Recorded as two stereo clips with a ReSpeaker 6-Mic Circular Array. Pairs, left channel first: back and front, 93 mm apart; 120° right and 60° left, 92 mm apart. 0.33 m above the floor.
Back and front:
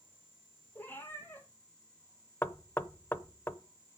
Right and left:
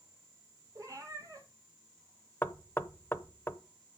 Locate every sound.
0.8 s a cat meowing: 110° left, 2 m
2.4 s knocking: 150° right, 0.7 m